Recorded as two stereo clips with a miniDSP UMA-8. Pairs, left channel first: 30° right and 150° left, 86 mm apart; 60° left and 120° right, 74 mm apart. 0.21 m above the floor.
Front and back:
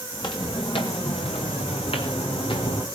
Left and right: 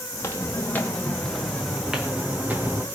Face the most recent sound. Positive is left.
turn(degrees=-55)